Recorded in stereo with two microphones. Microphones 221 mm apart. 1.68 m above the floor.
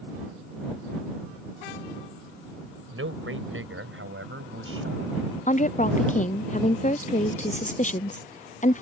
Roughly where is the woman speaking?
Left.